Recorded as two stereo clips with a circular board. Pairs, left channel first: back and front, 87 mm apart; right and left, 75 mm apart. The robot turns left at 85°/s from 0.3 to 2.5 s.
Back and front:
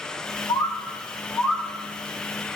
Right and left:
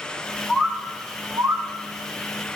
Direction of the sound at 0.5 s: 155° right.